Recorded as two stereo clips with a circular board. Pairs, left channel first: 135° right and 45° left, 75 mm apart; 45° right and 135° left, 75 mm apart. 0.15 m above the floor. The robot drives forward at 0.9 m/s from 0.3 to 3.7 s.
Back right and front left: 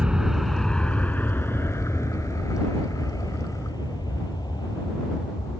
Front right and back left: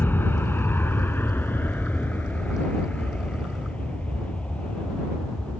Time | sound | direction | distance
0.0 | an aircraft | 20° right | ?